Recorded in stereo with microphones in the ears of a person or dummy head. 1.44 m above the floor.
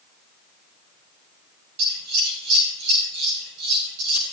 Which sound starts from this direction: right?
Scissors, at 1.8 s.